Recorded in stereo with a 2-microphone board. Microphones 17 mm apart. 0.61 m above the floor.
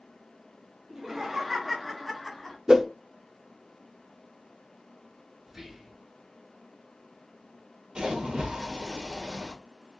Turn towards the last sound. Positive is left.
turn(degrees=-75)  # may be behind; listen again after turning